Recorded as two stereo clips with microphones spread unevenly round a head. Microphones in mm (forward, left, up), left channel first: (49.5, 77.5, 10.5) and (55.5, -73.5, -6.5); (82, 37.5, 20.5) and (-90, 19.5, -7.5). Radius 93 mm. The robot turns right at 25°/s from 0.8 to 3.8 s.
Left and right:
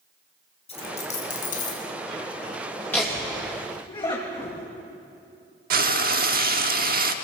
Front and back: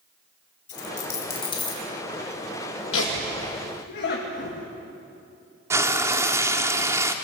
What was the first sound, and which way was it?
A dropped coin, 45° left.